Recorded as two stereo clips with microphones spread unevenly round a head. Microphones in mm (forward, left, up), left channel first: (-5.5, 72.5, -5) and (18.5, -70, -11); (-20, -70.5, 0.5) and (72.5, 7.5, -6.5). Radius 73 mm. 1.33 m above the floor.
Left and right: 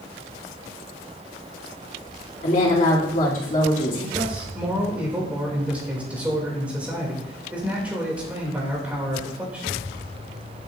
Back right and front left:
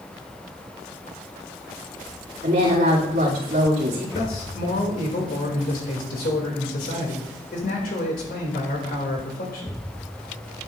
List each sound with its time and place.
2.4 s a woman speaking: 60° left, 2.5 m
4.2 s a man speaking: 160° right, 2.5 m